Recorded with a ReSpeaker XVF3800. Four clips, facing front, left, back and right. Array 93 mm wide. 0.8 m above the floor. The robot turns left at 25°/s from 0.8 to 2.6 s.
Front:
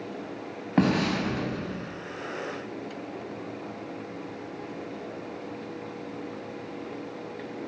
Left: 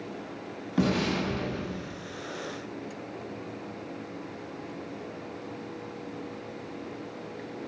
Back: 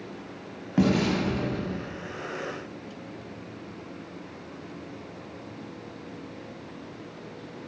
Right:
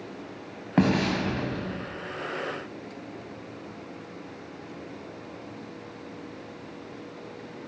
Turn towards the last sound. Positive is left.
turn(degrees=-95)